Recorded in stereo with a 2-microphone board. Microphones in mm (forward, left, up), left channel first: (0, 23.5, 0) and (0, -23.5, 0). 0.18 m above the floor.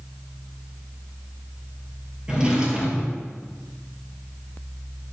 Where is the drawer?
15° right (ahead or behind), 1.7 m.